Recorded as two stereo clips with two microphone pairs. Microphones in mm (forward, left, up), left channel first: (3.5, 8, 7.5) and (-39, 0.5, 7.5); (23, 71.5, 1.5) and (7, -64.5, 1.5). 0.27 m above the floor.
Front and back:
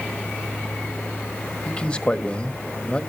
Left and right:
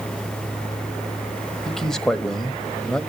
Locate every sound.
1.6 s a man speaking: straight ahead, 1.1 m